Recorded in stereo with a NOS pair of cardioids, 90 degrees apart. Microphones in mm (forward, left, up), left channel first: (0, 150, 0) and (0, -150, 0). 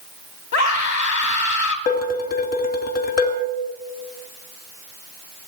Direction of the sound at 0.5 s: 65° left.